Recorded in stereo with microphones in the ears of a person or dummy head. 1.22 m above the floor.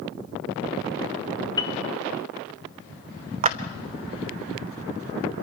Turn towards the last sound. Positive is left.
turn(degrees=-30)  # may be behind; listen again after turning